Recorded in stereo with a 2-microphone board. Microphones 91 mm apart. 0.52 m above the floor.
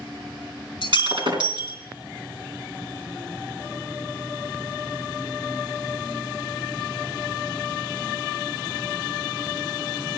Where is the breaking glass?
60° right (ahead or behind), 3 m.